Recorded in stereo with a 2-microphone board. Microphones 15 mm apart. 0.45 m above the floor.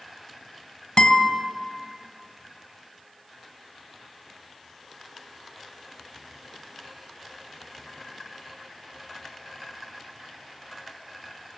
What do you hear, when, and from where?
1.0 s a guitar: 70° left (ahead or behind), 2.5 m